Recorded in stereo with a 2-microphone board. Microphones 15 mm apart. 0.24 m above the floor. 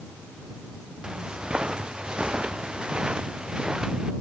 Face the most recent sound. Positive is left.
turn(degrees=-65)  # may be behind; listen again after turning